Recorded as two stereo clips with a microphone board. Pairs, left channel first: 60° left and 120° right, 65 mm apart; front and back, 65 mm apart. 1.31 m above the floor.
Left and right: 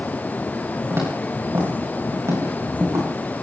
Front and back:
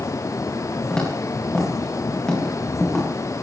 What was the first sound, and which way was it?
Footsteps, 75° right.